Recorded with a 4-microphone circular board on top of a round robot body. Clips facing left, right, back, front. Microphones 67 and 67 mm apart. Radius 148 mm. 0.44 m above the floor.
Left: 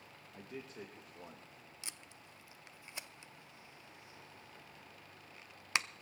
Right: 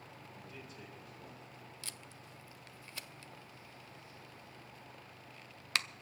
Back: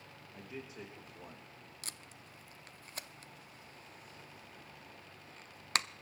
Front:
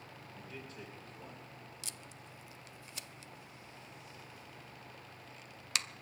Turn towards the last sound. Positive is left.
turn(degrees=155)